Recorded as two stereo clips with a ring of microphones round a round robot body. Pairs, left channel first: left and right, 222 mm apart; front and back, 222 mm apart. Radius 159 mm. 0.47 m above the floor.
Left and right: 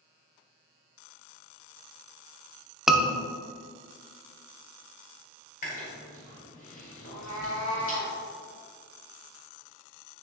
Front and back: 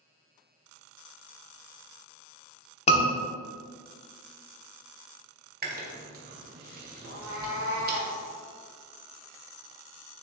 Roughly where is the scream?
Ahead.